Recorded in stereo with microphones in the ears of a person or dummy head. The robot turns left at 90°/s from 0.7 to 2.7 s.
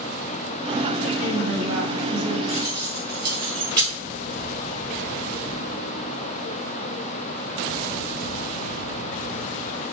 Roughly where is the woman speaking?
Ahead right.